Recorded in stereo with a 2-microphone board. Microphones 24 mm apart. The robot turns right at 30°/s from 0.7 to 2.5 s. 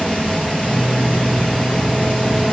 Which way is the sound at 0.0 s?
65° left.